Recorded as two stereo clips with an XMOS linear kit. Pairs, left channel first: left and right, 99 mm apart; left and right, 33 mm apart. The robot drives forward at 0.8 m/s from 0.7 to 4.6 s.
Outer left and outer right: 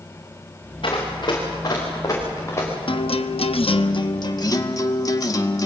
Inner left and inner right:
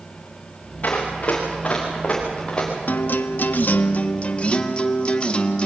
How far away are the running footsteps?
About 7.5 m.